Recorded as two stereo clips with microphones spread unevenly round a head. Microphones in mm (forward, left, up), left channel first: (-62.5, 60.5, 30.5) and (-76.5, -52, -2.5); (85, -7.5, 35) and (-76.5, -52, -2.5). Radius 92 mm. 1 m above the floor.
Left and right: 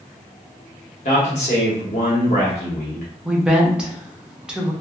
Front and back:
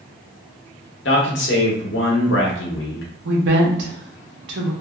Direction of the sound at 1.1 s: 40° left.